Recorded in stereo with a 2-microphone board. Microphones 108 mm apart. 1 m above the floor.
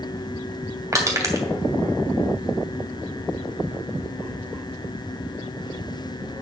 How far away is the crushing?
About 2.5 m.